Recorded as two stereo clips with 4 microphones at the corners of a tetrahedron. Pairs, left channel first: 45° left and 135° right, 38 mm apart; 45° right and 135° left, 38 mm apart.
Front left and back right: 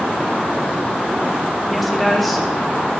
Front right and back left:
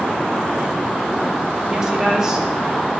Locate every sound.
1.7 s a woman speaking: 130° left, 0.7 m